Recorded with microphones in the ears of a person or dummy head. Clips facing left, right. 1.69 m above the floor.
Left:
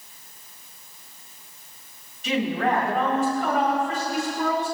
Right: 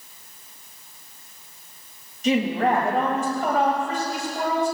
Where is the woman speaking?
30° right (ahead or behind), 3.5 m.